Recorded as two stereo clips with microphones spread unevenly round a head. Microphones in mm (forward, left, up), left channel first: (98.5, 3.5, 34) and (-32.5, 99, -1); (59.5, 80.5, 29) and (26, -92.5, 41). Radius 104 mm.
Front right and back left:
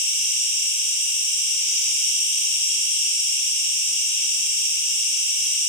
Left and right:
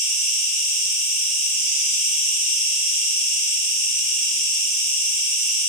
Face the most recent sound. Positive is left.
turn(degrees=-95)